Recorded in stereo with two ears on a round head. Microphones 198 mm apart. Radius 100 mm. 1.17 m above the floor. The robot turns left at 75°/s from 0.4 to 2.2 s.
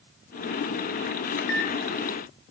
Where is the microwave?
50° left (ahead or behind), 0.9 m; by 1.7 s 80° left, 0.9 m.